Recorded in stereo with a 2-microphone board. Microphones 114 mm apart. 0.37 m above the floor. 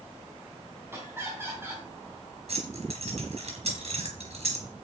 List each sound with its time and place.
0.9 s laughter: 20° right (ahead or behind), 3.5 m
2.5 s keys jangling: 60° right (ahead or behind), 4 m